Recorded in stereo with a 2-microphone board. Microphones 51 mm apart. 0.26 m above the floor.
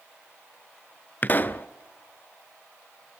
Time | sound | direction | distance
1.2 | a pop | 35° left (ahead or behind) | 0.8 m